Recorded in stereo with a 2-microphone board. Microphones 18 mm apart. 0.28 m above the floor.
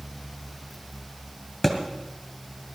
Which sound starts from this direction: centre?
A thud, at 1.6 s.